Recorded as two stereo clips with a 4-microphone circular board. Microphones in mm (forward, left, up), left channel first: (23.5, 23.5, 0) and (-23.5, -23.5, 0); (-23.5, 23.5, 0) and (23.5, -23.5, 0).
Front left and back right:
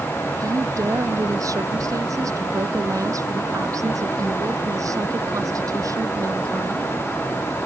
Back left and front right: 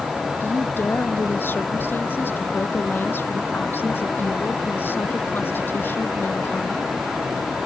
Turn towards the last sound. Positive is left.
turn(degrees=-170)